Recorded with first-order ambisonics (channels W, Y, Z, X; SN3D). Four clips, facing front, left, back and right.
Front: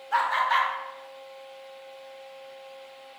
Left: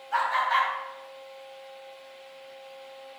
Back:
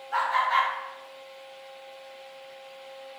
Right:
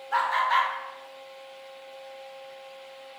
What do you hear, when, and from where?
0.1 s laughter: 35° right, 0.7 m